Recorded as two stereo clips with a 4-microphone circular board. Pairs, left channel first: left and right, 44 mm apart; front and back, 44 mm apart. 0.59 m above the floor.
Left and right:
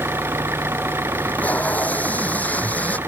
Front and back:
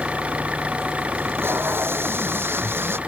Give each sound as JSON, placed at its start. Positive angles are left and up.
{"t": 0.0, "sound": "an engine running", "azimuth_deg": -115}
{"t": 1.1, "sound": "tape being pulled", "azimuth_deg": 145}